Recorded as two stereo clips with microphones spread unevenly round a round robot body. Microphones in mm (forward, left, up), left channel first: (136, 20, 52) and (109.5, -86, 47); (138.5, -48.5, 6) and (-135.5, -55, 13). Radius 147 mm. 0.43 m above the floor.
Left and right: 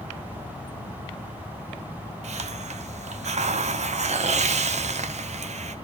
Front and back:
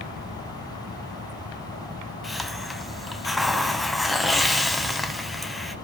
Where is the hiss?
90° right, 1.0 m.